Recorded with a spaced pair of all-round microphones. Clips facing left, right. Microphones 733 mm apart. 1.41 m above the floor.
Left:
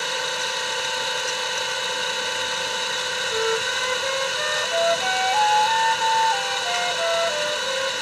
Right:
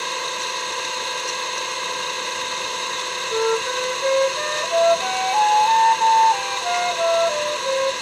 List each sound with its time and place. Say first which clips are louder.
0.0 s an engine running: left 1 dB; 25° left (ahead or behind)
3.3 s a flute: right 4 dB; 60° right (ahead or behind)